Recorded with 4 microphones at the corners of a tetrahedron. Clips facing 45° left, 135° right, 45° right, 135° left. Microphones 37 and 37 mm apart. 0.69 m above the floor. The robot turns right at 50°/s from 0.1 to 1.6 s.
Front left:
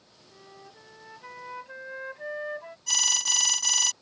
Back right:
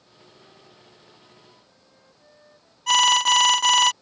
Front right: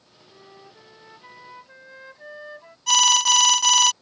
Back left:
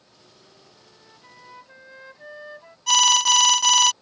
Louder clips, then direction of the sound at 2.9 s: Back right 12 dB, even; 135° right.